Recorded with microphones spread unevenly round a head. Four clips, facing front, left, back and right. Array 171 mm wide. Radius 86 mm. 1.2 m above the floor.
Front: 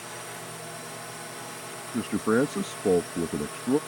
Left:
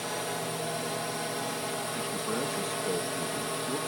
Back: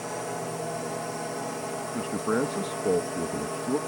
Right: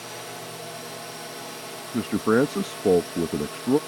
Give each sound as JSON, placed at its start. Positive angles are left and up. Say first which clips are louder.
{"t": 0.0, "sound": "a drone", "louder": "left 4 dB, back 8 dB", "azimuth_deg": 155}
{"t": 1.9, "sound": "a man speaking", "louder": "right 16 dB, front 4 dB", "azimuth_deg": -65}